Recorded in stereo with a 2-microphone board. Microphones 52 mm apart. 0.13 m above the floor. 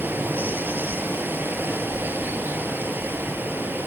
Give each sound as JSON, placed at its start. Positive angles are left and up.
{"t": 0.0, "sound": "running water", "side_deg": -35, "distance_m": 1.0}